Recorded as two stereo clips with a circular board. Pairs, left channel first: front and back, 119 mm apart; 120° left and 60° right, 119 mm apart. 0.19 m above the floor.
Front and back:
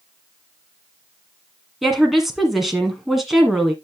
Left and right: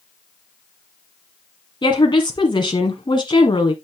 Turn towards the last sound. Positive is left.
turn(degrees=90)